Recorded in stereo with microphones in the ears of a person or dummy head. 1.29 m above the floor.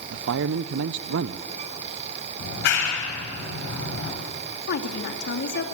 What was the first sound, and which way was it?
A man speaking, 60° right (ahead or behind).